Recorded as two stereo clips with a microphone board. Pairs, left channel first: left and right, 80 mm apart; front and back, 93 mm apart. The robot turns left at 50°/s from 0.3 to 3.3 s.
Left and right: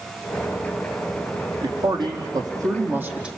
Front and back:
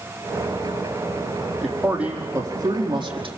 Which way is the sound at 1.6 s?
85° right.